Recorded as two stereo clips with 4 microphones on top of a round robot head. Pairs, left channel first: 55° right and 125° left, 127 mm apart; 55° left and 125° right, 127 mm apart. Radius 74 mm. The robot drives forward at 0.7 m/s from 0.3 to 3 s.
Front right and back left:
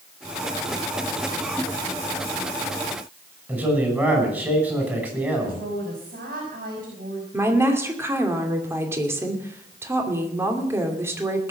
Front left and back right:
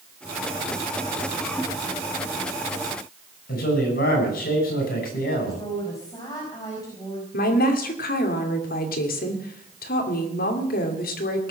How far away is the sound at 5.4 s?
About 5.5 m.